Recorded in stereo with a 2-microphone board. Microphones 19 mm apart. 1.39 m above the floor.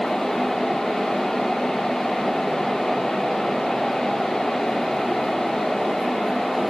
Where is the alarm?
I don't hear an alarm.